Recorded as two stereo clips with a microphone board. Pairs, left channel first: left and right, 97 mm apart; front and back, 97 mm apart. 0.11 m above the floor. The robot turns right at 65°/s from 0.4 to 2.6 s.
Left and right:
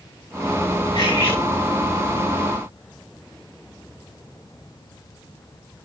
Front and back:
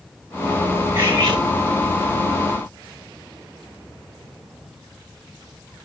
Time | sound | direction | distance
0.9 | cutlery clinking | 115° left | 7 m